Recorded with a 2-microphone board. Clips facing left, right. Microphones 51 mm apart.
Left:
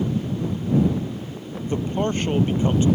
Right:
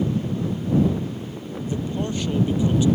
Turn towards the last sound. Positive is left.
turn(degrees=40)  # may be behind; listen again after turning